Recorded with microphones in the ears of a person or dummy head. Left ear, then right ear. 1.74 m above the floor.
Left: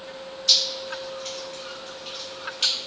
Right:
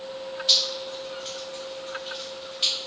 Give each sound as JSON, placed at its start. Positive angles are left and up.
{"t": 0.5, "sound": "dripping", "side_deg": 35, "distance_m": 1.3}